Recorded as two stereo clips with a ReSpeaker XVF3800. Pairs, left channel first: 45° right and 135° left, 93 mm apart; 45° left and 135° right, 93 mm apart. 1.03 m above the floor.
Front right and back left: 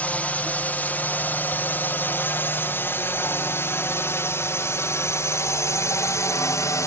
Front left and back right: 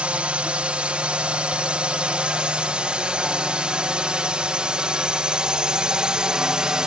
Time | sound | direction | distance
0.0 | a drone | 85° right | ?